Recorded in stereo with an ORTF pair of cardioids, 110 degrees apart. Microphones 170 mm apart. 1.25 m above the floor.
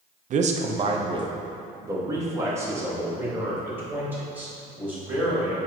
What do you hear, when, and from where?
0.3 s a man speaking: 50° right, 0.7 m; by 5.6 s 10° right, 3.5 m